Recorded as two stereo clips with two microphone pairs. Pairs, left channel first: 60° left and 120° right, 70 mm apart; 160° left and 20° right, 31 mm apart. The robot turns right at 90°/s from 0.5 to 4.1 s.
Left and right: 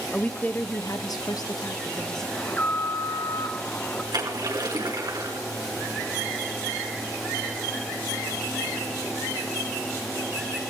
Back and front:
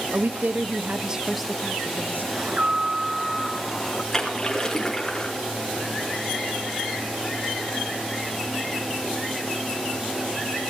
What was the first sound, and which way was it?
A woman speaking, 10° right.